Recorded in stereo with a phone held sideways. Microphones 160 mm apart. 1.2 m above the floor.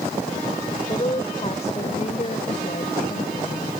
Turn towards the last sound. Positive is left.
turn(degrees=60)  # may be behind; listen again after turning